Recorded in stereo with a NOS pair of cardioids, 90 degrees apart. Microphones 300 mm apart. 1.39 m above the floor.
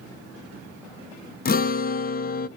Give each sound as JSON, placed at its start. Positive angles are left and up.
{"t": 1.4, "sound": "a guitar", "azimuth_deg": 30, "distance_m": 0.7}